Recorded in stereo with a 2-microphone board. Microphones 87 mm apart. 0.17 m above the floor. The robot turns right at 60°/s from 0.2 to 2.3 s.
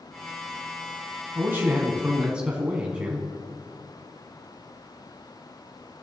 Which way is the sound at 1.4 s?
25° right (ahead or behind).